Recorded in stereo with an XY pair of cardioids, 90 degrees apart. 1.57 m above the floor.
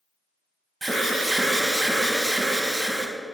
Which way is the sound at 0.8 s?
20° right.